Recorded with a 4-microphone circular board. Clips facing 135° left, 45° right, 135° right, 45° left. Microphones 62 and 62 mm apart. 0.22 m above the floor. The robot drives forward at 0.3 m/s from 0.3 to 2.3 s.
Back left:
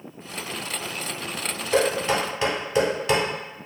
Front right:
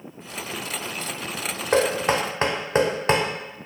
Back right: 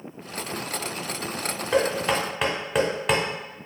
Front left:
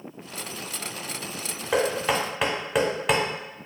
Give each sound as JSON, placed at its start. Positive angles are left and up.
{"t": 1.7, "sound": "knocking", "azimuth_deg": -35, "distance_m": 0.9}